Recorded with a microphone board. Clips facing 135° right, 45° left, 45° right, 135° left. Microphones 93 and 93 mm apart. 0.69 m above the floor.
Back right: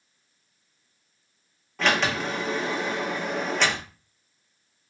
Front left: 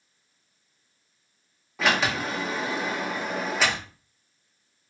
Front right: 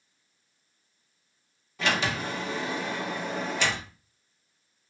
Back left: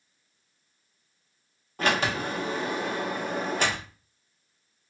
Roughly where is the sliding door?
Behind left.